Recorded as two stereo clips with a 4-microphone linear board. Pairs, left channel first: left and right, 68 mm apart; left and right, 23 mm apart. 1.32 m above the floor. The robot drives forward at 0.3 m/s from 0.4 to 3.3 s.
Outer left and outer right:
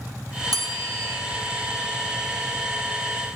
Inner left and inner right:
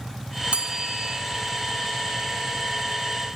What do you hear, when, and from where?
0.5 s a bell: 70° right (ahead or behind), 1.0 m; by 1.2 s 60° right (ahead or behind), 1.1 m